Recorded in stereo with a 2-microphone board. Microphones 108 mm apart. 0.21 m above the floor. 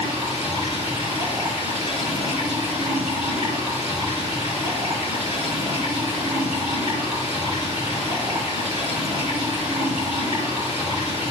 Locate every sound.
0.0 s running water: 65° right (ahead or behind), 3 m